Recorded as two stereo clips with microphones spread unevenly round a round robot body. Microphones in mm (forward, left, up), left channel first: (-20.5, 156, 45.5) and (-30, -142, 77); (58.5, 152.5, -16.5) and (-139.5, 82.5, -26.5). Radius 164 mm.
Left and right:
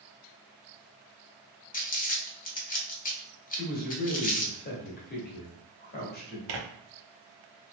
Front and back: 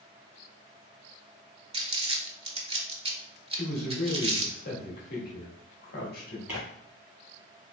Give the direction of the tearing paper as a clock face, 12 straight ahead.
2 o'clock.